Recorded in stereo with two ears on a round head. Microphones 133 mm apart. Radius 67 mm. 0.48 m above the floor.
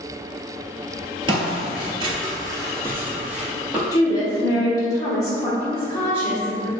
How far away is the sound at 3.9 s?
About 0.9 m.